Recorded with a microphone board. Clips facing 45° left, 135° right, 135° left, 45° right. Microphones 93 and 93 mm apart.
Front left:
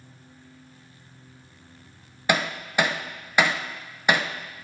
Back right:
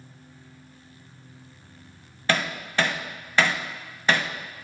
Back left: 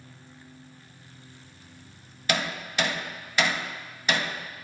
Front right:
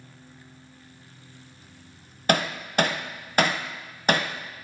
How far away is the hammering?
About 0.7 m.